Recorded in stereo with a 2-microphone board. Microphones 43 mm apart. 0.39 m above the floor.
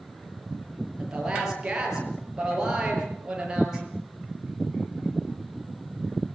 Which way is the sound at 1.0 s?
15° right (ahead or behind).